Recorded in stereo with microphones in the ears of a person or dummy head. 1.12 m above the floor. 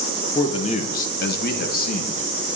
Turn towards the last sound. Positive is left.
turn(degrees=40)  # may be behind; listen again after turning